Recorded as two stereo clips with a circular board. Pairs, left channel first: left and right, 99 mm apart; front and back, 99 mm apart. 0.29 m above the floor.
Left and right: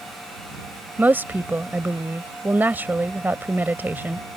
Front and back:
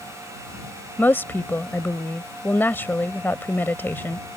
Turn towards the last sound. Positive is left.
turn(degrees=-45)